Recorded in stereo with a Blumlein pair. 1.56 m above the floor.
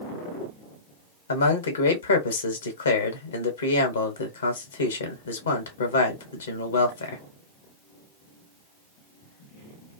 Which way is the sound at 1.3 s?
70° left.